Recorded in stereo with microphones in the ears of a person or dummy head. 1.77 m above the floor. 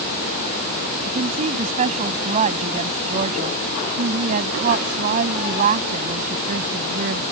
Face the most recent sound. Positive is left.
turn(degrees=-50)  # may be behind; listen again after turning